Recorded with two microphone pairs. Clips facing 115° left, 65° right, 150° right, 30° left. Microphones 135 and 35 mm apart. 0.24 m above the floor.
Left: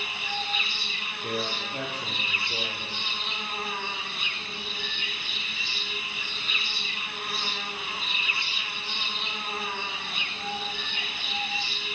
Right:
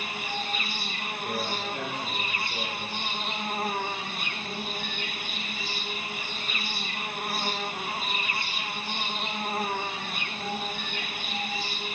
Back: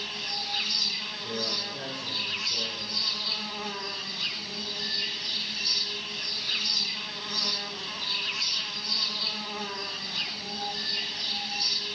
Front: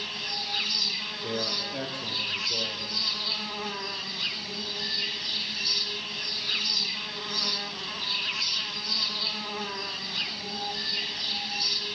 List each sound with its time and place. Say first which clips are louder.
0.0 s an insect: right 1 dB, front 1 dB; 45° right, 0.8 m
1.2 s a man speaking: even, front 2 dB; 60° left, 6 m